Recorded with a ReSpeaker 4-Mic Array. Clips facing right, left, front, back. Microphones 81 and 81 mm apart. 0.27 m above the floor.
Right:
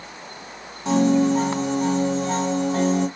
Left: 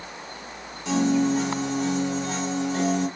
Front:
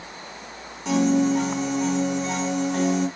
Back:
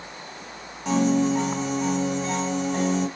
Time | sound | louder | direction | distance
0.8 | a piano | right 4 dB, front 1 dB | 95° right | 1.7 m